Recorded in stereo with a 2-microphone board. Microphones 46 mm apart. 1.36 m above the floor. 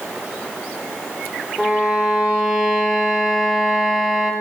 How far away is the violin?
About 1.0 m.